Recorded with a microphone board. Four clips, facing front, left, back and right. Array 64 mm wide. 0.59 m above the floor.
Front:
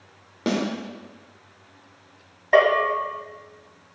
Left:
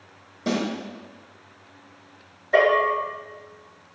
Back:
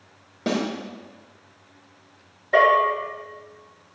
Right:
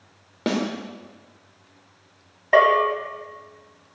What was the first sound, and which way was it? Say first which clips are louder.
A snare drum: right 1 dB, even; 75° right.